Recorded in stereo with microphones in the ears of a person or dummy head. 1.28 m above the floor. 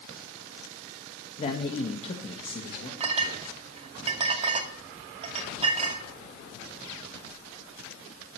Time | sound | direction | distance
1.4 | a man speaking | 30° left (ahead or behind) | 1.5 m
3.0 | a clink | 35° right (ahead or behind) | 2 m